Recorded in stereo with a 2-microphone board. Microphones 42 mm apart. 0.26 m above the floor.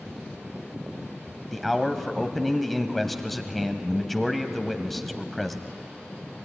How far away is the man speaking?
About 1.1 m.